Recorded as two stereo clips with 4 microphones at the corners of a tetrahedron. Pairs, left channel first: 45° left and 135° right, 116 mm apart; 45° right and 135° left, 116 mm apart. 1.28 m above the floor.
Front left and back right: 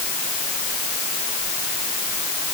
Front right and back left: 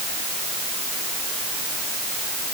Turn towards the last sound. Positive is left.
No sound to turn to.